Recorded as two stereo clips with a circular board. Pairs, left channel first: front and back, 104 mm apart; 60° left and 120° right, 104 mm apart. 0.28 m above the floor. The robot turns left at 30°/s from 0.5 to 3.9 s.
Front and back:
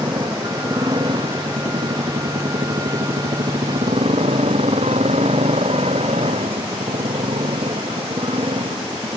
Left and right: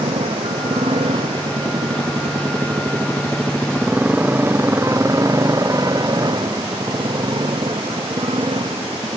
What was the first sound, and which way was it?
A motorcycle, 135° right.